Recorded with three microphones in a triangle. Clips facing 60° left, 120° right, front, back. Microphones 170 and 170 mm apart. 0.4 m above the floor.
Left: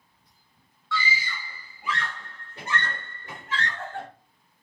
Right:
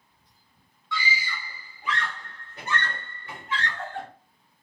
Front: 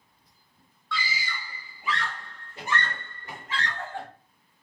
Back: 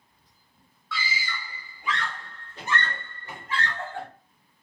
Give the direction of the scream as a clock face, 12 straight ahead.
4 o'clock.